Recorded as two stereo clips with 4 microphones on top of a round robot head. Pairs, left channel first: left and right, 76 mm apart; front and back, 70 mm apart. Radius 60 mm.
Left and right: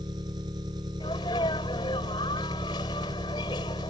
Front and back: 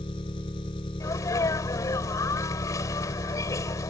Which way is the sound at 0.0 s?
40° right.